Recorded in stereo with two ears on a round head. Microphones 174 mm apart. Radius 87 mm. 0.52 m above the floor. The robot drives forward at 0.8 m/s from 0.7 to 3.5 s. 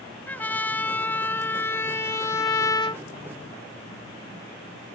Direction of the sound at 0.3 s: 10° left (ahead or behind).